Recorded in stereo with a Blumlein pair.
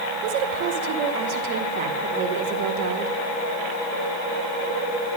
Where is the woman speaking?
45° right, 1.8 m.